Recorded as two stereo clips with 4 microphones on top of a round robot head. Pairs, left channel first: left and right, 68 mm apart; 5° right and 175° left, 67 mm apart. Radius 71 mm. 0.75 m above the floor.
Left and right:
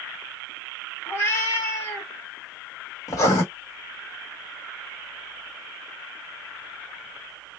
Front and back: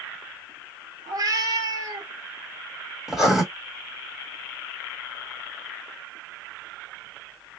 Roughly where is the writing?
Left.